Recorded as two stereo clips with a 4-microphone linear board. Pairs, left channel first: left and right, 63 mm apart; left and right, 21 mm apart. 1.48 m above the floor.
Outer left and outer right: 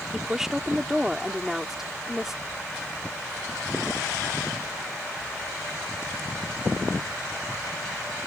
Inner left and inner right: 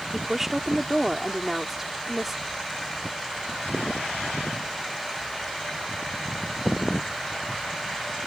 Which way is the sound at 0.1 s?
5° right (ahead or behind).